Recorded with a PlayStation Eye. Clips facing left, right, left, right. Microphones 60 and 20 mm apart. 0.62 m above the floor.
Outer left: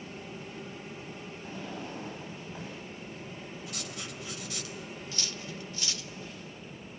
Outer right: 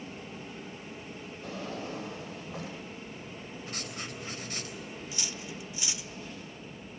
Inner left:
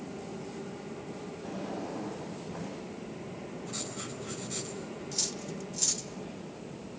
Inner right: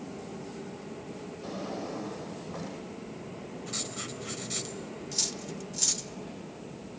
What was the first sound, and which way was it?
A drawer, 70° right (ahead or behind).